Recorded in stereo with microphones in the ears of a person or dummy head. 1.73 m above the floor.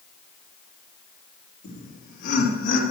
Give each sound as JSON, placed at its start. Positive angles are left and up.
{"t": 1.6, "sound": "laughter", "side_deg": 55, "distance_m": 3.5}